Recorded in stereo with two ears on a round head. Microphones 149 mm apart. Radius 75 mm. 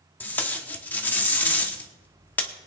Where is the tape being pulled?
10° left (ahead or behind), 1.0 m.